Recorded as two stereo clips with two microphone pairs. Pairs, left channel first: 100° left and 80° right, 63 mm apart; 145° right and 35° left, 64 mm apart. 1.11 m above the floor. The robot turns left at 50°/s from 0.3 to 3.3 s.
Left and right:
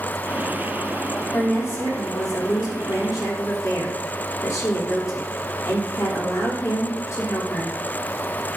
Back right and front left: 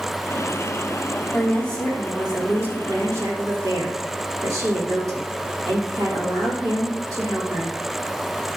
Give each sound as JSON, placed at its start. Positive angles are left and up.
{"t": 1.3, "sound": "a woman speaking", "azimuth_deg": 160, "distance_m": 3.0}